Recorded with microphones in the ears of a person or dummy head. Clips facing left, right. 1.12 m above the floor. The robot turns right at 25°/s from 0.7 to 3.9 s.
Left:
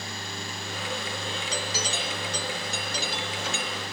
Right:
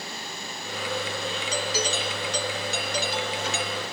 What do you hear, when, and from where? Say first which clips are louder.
1.5 s a doorbell: right 5 dB; 90° right; by 3.9 s 30° right